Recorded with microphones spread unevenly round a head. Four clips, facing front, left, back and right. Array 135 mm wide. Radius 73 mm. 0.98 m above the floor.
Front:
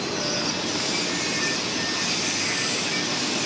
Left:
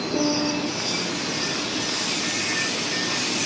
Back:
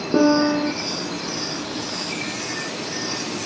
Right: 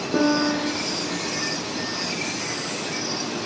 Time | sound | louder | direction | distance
0.1 | a piano | right 4 dB, back 12 dB | 165° right | ?